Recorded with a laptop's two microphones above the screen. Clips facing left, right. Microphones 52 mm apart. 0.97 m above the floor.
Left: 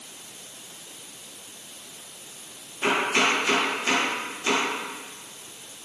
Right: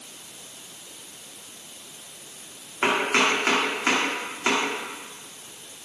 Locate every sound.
2.8 s chopping: 70° right (ahead or behind), 2.5 m